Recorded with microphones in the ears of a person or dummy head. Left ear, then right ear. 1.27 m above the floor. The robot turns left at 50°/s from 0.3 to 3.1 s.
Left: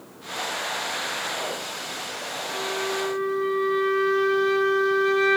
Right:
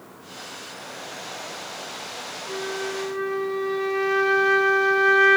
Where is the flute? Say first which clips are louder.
Left 1 dB; 90° right, 1.0 m; by 5.4 s 125° right, 1.0 m.